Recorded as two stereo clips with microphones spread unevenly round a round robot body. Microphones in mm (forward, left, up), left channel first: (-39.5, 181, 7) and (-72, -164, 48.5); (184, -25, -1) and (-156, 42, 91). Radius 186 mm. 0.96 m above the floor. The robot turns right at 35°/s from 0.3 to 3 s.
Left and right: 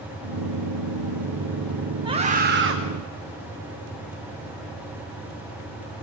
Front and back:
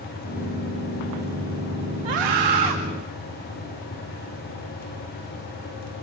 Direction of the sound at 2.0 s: 175° right.